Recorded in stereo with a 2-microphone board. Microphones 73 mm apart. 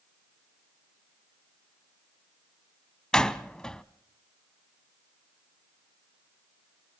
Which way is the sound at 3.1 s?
10° left (ahead or behind).